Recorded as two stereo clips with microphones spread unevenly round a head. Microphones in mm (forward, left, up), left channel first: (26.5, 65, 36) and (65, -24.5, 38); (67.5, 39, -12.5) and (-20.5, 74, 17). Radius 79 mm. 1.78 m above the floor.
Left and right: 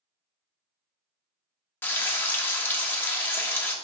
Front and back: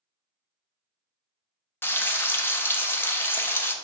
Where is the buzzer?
I don't hear a buzzer.